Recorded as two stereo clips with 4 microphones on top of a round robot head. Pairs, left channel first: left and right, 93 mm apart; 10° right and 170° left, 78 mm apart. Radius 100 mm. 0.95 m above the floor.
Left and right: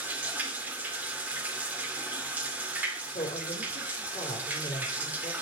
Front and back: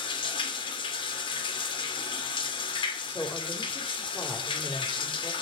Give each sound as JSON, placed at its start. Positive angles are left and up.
{"t": 0.0, "sound": "running water", "azimuth_deg": -15, "distance_m": 2.0}
{"t": 3.1, "sound": "a woman speaking", "azimuth_deg": 55, "distance_m": 4.0}